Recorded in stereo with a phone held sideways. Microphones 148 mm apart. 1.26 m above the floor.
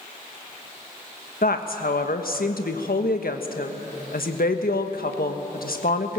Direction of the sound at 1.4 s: 80° left.